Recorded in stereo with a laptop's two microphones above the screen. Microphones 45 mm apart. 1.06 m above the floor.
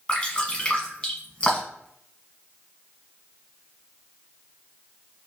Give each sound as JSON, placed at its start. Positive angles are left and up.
{"t": 0.1, "sound": "dripping", "side_deg": 25, "distance_m": 1.2}